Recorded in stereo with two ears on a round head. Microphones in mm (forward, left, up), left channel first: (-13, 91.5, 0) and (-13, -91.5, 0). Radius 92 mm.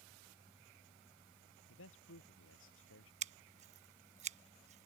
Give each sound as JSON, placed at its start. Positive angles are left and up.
{"t": 1.7, "sound": "a man speaking", "side_deg": 75}
{"t": 3.2, "sound": "scissors", "side_deg": -35}